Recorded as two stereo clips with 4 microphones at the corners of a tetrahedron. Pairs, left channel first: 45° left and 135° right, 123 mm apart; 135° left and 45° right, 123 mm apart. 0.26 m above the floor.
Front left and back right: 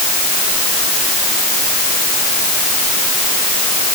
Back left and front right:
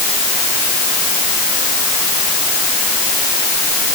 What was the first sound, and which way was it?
Only background noise.